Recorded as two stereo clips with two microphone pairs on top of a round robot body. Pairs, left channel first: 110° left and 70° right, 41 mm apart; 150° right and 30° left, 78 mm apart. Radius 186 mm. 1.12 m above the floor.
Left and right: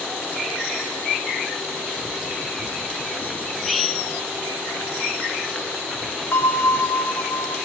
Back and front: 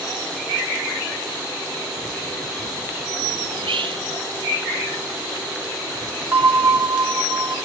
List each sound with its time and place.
3.5 s whispering: 20° left, 0.7 m
6.3 s a bell: 95° left, 2.5 m